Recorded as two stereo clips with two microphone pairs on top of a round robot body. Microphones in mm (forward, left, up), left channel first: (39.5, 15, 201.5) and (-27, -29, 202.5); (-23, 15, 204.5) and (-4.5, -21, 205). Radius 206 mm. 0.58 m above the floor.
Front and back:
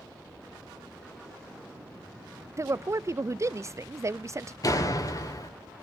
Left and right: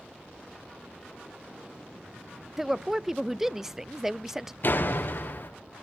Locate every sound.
2.6 s a woman speaking: 140° right, 0.6 m
4.6 s a door slam: 75° left, 2 m